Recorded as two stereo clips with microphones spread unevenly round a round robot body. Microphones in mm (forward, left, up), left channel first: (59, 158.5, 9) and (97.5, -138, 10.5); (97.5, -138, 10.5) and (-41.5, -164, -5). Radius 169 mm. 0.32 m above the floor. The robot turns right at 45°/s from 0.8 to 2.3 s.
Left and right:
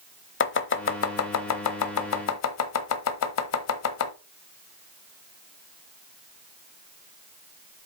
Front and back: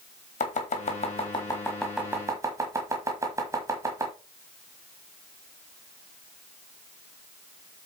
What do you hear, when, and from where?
0.4 s chopping: 55° left, 1.0 m; by 4.1 s 125° left, 1.0 m